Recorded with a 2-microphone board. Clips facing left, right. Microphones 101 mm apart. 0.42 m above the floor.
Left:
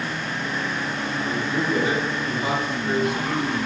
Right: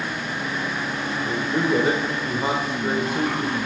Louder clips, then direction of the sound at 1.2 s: Right 2 dB; 40° right (ahead or behind).